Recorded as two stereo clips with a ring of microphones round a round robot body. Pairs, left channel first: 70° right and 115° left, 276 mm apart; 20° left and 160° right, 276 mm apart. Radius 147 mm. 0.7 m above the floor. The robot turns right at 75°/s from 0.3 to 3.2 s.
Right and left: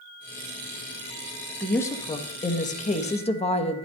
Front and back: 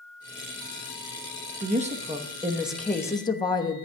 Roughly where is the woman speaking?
Behind right.